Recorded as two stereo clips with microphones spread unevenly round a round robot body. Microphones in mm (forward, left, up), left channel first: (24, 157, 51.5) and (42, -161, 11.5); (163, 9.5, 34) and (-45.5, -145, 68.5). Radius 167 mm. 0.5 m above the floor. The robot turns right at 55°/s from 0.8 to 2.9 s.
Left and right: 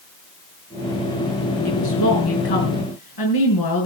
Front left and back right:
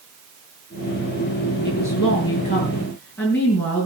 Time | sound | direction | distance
1.6 | a woman speaking | 50° left | 5.5 m